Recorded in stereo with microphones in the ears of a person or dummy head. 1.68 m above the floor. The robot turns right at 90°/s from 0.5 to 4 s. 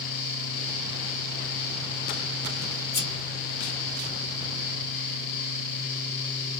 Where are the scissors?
15° left (ahead or behind), 1.3 m; by 3.1 s 25° left (ahead or behind), 1.3 m.